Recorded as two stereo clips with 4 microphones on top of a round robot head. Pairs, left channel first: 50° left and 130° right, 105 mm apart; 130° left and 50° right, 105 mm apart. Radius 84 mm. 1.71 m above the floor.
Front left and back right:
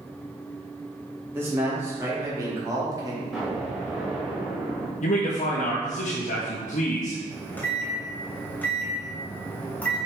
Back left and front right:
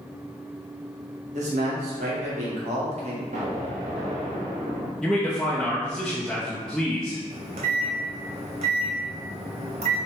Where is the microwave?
25° right, 1.2 m.